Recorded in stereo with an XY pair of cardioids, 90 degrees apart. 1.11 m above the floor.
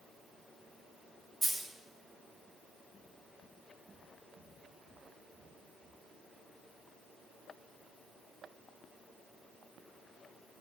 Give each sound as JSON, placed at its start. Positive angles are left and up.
{"t": 1.4, "sound": "a dropped coin", "azimuth_deg": -20, "distance_m": 2.0}